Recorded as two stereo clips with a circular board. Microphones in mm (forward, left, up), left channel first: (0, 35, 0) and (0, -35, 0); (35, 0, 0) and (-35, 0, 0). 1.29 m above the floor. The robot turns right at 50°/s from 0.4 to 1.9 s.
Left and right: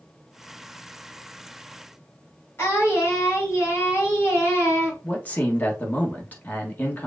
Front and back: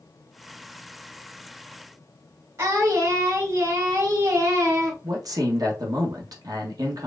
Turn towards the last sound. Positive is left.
turn(degrees=155)